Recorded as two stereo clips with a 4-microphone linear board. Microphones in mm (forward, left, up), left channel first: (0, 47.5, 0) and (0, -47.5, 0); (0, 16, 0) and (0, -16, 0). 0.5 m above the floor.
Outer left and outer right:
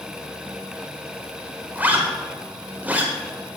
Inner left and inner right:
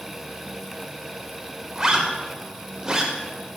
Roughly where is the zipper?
Centre.